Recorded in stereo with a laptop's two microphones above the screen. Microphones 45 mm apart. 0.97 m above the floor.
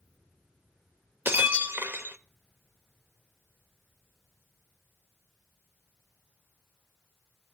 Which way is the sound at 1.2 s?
50° right (ahead or behind).